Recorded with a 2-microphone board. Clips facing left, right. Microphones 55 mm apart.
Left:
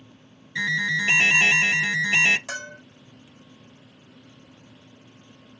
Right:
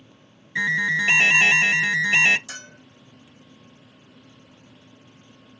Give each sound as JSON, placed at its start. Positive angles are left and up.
{"t": 0.6, "sound": "an alarm", "side_deg": -25, "distance_m": 0.8}
{"t": 2.5, "sound": "a bell", "side_deg": 65, "distance_m": 1.8}